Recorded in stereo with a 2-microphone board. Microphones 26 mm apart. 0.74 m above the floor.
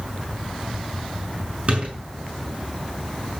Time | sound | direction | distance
1.7 | a door slam | 50° right (ahead or behind) | 6 m